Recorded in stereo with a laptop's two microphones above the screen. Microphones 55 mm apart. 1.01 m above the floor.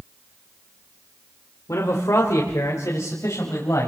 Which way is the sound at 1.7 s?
85° left.